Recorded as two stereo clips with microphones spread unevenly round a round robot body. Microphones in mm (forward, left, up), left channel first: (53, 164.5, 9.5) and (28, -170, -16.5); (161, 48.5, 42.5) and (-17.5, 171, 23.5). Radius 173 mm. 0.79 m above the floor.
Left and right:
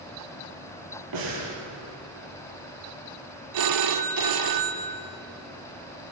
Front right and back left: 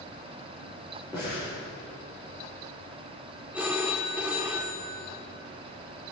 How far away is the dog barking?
I don't hear a dog barking.